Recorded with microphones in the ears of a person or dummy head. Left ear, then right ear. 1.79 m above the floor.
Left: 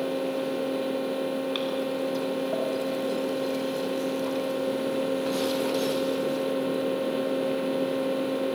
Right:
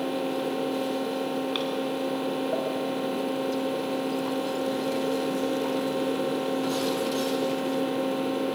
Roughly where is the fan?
Centre.